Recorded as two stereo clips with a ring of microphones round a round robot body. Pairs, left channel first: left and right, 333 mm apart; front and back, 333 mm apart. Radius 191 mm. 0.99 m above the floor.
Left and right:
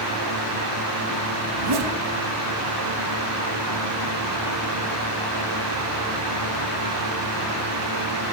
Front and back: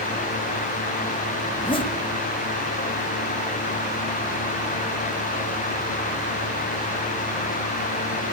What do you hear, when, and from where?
1.5 s a zipper: 75° right, 1.5 m